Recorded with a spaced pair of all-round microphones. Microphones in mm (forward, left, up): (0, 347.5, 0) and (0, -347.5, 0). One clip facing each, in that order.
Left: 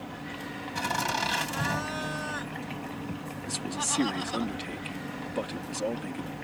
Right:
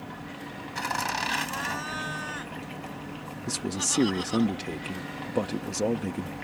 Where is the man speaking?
65° right (ahead or behind).